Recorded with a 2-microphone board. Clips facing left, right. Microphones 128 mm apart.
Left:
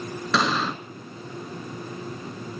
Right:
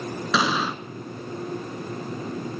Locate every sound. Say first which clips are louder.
0.3 s an explosion: even; 5° right (ahead or behind), 0.8 m